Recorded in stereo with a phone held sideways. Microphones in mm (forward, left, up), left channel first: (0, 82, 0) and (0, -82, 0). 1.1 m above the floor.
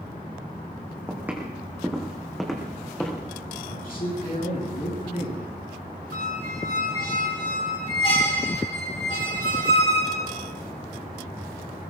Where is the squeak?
35° left (ahead or behind), 2.5 m.